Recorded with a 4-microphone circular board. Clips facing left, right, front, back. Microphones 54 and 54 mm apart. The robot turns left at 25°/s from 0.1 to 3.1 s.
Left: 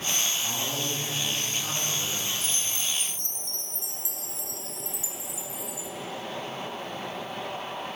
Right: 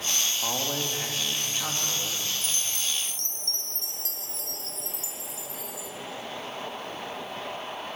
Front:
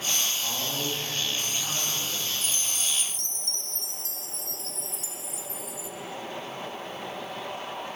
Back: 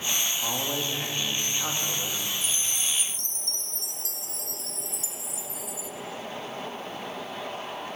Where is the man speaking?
115° right, 2 m; by 2.3 s 160° right, 2 m.